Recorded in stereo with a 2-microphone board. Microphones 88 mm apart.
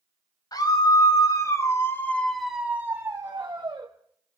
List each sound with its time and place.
0.5 s a scream: 50° left (ahead or behind), 2.5 m; by 3.9 s 45° right (ahead or behind), 1.9 m